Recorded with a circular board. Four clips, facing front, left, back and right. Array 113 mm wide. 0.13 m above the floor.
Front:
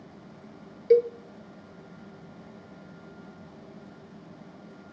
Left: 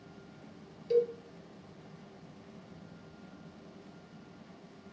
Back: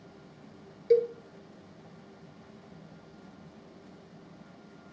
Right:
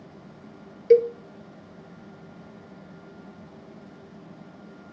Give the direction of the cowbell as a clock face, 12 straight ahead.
3 o'clock.